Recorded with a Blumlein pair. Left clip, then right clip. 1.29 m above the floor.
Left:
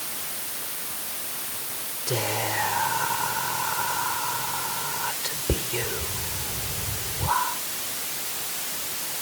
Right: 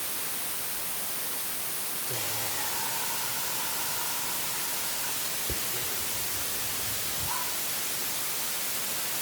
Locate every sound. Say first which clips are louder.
2.1 s whispering: left 9 dB; 60° left